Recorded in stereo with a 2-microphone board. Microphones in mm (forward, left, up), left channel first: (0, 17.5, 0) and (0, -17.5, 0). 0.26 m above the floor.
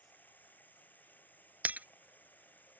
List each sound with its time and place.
0.0 s running water: 55° left (ahead or behind)
1.6 s breaking glass: 55° right (ahead or behind)